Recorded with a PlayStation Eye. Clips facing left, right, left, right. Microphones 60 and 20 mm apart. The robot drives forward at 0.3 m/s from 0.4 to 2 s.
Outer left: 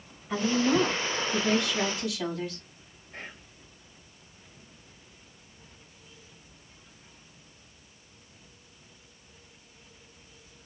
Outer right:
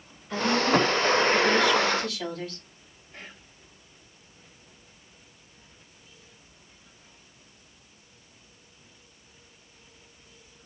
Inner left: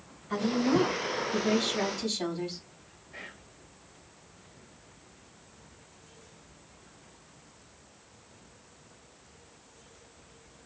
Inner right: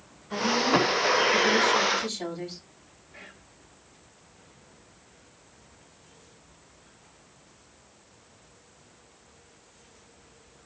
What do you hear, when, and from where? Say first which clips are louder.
0.3 s a woman speaking: outer right 2 dB, inner right 3 dB; 15° left (ahead or behind), 2 m
3.1 s whispering: outer left 3 dB, inner left 3 dB; 45° left (ahead or behind), 2.5 m